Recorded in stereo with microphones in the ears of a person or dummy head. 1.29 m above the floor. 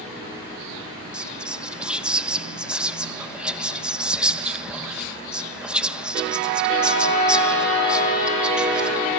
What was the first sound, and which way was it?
Whispering, 5° right (ahead or behind).